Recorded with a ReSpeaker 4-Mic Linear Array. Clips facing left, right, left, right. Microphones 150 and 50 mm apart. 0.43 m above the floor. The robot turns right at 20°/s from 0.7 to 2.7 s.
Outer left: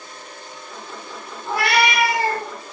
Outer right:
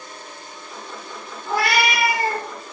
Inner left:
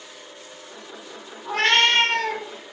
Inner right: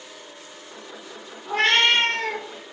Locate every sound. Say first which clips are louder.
1.4 s a cat meowing: outer left 1 dB, even; 65° left (ahead or behind), 1.6 m; by 2.5 s 85° left, 1.6 m